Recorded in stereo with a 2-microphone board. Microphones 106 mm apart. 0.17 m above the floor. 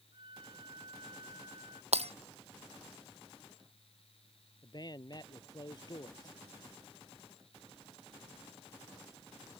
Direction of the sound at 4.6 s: 40° left (ahead or behind).